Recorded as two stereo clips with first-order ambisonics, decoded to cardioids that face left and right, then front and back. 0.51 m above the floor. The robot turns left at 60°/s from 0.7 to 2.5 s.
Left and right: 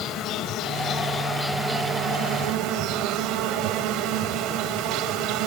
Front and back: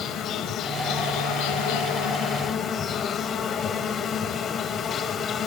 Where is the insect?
50° left, 1.0 m; by 5.5 s 60° right, 1.0 m.